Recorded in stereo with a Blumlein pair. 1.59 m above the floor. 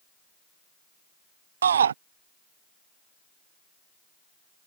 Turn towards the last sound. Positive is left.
turn(degrees=-65)